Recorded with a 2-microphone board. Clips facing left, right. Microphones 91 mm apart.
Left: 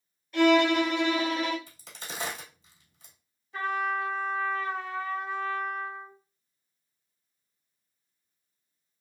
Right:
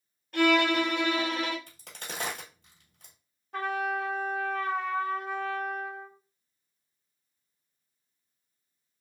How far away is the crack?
About 1.3 m.